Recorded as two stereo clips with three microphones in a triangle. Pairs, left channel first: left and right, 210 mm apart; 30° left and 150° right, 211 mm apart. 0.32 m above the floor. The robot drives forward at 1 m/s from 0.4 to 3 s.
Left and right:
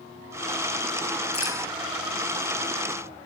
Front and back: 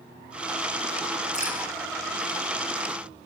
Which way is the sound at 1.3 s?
85° left.